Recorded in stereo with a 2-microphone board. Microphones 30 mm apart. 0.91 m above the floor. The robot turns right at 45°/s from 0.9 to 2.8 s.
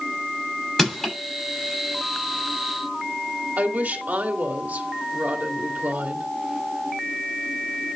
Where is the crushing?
10° left (ahead or behind), 6.5 m; by 1.1 s 20° left (ahead or behind), 6.5 m.